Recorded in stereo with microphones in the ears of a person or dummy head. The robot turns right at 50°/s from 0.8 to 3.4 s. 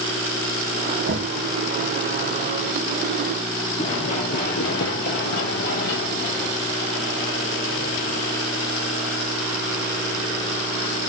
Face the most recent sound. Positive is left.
turn(degrees=45)  # may be behind; listen again after turning